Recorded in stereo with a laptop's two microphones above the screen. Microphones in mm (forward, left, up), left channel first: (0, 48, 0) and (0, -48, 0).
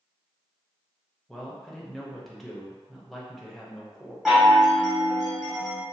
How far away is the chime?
About 1.1 m.